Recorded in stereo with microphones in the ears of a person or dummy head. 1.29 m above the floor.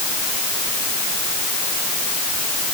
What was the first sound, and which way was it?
Only background noise.